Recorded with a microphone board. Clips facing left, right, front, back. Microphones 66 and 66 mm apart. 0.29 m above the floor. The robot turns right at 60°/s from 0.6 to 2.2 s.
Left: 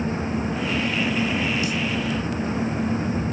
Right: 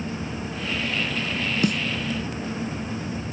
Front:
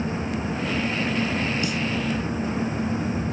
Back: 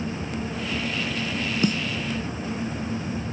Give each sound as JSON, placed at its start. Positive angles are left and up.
{"t": 1.6, "sound": "a snare drum", "azimuth_deg": -130, "distance_m": 0.9}